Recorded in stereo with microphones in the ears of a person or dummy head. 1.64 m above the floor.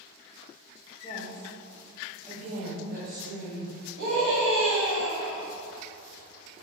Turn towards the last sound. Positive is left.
turn(degrees=-50)  # may be behind; listen again after turning